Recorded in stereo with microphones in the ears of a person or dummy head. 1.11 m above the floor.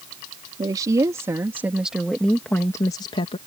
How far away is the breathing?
No breathing in this recording.